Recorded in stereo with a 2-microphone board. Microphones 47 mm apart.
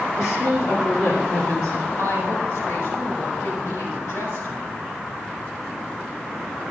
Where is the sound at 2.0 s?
85° left, 5.5 m.